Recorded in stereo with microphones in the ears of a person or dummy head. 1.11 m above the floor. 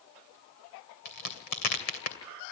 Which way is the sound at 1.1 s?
50° left (ahead or behind).